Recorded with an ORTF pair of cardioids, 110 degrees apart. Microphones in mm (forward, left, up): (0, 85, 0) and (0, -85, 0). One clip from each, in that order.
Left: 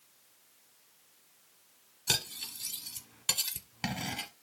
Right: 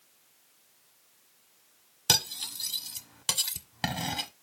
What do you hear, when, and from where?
2.1 s cutlery clinking: 25° right, 1.3 m